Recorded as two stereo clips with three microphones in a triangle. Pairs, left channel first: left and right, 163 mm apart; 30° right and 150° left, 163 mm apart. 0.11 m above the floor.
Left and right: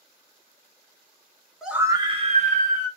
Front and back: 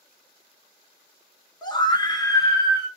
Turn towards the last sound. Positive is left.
turn(degrees=-100)